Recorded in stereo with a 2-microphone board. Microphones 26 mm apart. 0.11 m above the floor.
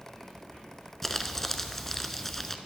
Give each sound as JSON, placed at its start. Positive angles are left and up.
{"t": 1.0, "sound": "crumpling", "side_deg": 10, "distance_m": 0.5}